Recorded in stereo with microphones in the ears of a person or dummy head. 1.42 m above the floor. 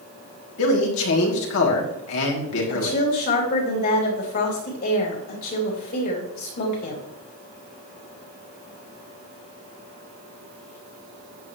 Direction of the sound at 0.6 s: 75° left (ahead or behind).